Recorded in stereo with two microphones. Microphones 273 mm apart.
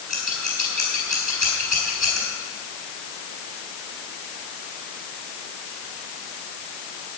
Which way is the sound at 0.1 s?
80° right.